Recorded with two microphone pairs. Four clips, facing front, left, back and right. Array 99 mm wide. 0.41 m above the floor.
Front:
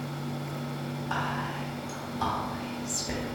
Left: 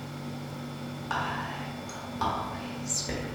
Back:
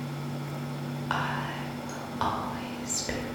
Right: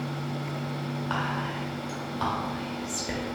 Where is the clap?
I don't hear a clap.